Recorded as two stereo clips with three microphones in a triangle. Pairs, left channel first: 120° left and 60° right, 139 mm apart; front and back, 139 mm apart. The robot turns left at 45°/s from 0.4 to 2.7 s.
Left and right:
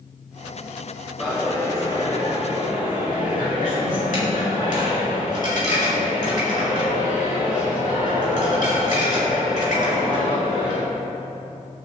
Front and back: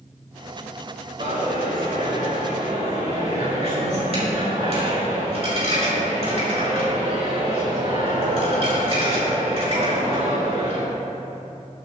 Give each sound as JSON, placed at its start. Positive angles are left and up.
{"t": 1.2, "sound": "a dropped coin", "azimuth_deg": -155, "distance_m": 4.5}